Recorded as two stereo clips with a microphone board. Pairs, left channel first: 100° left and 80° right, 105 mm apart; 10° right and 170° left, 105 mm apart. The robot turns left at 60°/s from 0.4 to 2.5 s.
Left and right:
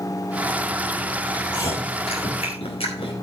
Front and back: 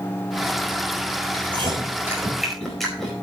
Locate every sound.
1.3 s chewing: 145° left, 4.5 m; by 3.1 s 75° left, 4.5 m